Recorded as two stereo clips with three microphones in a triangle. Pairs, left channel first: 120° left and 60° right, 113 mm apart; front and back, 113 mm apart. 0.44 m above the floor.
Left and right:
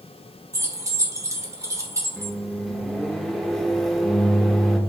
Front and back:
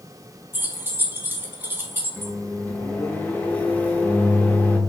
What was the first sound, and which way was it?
Keys jangling, 115° right.